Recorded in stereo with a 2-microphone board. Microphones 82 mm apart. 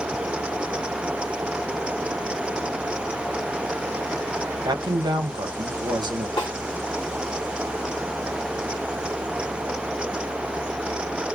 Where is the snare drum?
70° left (ahead or behind), 1.6 m.